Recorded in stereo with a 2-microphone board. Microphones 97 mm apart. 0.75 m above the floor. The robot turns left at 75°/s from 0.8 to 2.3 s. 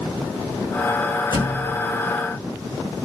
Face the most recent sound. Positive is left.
turn(degrees=-100)